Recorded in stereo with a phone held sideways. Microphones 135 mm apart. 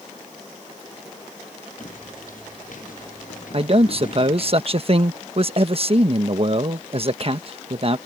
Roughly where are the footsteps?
Left.